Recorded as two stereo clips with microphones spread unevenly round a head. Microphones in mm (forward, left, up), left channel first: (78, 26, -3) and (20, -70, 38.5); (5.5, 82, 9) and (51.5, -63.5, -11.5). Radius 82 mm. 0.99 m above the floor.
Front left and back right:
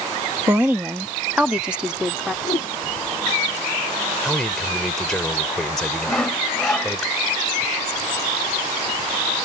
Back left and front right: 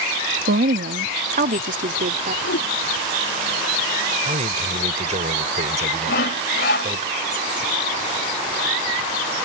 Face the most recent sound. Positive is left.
turn(degrees=145)